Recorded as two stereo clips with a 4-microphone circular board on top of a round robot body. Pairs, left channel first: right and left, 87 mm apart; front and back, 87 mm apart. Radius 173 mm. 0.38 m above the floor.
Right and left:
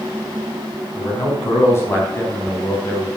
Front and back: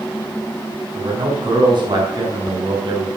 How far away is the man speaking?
About 5 m.